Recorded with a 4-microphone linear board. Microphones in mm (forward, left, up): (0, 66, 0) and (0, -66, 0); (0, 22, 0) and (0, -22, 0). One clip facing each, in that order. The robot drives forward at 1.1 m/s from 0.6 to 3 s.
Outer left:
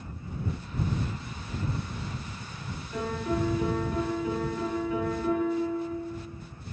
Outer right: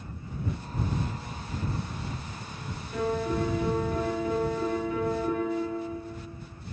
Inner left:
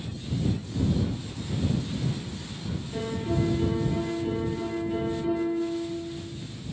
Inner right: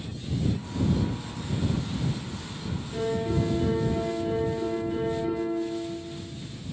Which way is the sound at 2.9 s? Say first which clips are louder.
Outer right 2 dB, inner right 2 dB; centre (ahead or behind).